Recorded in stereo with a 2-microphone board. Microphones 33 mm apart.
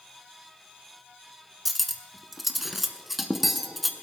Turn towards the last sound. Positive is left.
turn(degrees=-5)  # may be behind; listen again after turning